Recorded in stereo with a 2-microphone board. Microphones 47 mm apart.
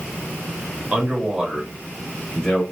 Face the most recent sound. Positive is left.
turn(degrees=10)  # may be behind; listen again after turning